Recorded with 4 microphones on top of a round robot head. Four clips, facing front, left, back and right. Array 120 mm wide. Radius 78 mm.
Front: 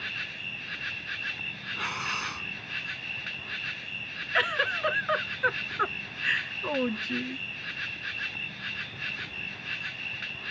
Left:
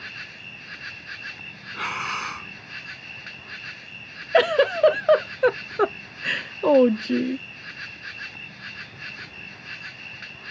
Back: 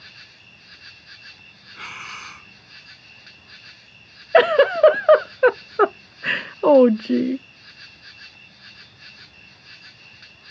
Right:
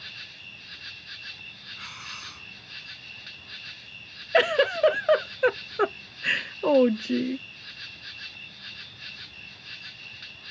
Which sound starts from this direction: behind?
A giggle, at 4.3 s.